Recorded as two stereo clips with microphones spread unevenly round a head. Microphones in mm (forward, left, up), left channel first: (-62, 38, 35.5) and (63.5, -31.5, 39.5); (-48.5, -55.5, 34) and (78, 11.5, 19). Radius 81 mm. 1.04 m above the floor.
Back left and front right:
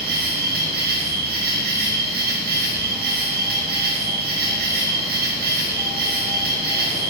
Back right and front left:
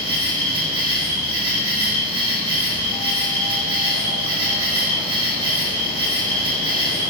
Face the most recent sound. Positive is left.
turn(degrees=-25)